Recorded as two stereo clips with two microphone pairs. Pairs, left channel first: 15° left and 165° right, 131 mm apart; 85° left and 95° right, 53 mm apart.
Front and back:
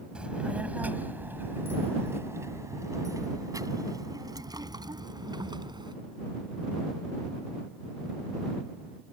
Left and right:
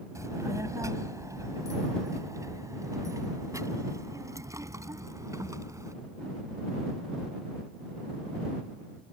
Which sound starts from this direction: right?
A child speaking, at 0.1 s.